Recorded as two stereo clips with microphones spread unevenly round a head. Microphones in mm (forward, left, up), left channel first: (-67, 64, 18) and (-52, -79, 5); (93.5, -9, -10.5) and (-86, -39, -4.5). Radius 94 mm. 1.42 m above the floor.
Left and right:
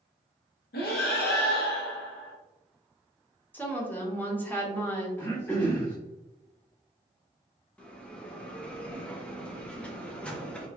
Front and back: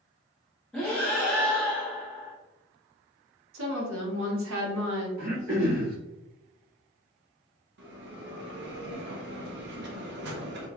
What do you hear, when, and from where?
0.7 s breathing: 95° left, 0.8 m
3.5 s a woman speaking: 175° left, 1.2 m
5.2 s throat clearing: 165° left, 1.3 m
7.8 s a bell: 175° left, 0.7 m